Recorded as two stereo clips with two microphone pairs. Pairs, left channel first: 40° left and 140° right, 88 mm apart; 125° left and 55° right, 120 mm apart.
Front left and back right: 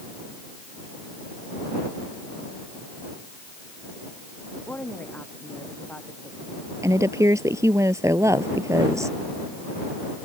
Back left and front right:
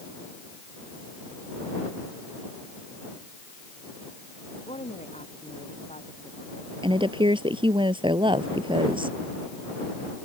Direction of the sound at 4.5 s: 110° left.